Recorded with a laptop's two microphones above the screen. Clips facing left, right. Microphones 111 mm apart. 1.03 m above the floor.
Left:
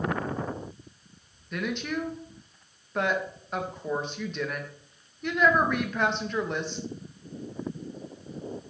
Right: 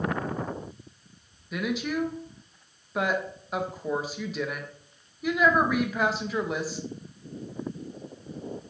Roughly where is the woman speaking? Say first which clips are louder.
Right 2 dB; centre.